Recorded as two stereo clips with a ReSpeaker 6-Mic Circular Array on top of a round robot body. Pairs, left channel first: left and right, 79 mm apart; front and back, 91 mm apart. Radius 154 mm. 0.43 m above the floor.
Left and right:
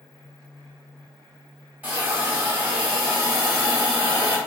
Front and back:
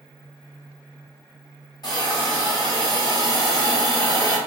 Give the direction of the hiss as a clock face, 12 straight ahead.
1 o'clock.